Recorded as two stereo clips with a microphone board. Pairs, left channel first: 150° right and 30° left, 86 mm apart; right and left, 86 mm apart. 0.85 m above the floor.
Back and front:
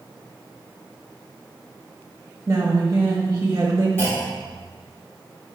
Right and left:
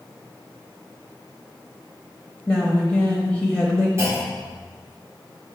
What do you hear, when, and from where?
2.5 s a woman speaking: 10° right, 0.9 m
4.0 s a clunk: 145° left, 2.5 m